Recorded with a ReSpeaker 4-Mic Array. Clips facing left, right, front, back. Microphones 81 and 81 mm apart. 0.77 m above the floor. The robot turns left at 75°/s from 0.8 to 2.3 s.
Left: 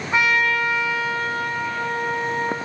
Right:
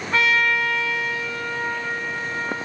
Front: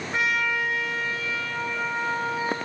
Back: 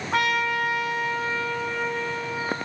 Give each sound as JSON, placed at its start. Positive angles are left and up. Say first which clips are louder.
{"t": 0.1, "sound": "a trumpet", "louder": "left 1 dB, back 2 dB", "azimuth_deg": 165, "distance_m": 3.0}